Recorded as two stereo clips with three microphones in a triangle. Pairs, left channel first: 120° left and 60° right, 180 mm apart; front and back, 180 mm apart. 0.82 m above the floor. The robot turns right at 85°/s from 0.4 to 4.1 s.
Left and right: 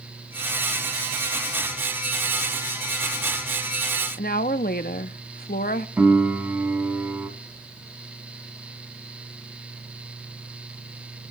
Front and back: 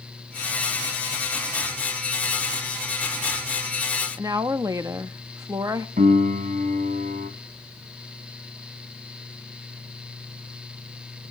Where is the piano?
140° right, 2 m.